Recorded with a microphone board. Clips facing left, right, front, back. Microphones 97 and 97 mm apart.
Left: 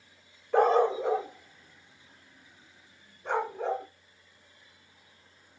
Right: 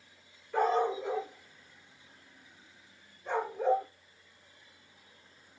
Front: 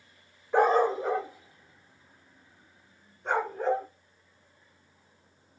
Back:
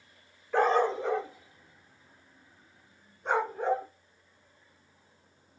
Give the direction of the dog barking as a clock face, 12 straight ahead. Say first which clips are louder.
Left 6 dB, front 2 dB; 10 o'clock.